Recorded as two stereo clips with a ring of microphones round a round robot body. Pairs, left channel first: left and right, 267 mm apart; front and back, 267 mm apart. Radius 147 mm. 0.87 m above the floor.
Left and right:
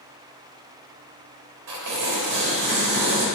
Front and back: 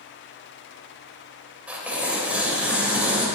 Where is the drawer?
I don't hear a drawer.